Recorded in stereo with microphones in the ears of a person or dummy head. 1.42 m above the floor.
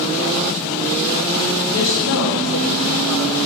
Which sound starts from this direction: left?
A woman speaking, at 1.7 s.